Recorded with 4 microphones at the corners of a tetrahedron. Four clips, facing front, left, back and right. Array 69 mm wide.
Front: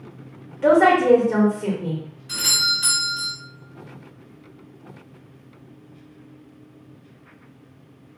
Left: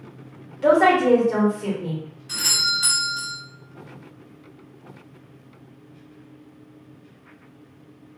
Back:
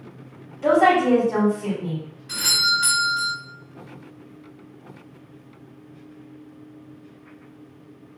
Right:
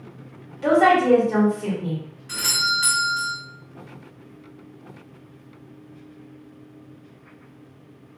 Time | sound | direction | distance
0.6 | a woman speaking | 5° left | 1.4 m
2.3 | a doorbell | 120° right | 1.7 m